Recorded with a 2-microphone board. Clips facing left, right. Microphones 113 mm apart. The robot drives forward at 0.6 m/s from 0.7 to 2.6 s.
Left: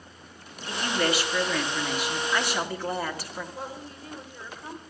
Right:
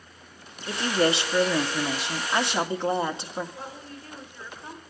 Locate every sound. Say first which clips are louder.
0.7 s a woman speaking: right 3 dB; 25° right (ahead or behind), 1.2 m
3.5 s a woman speaking: left 2 dB; 20° left (ahead or behind), 3 m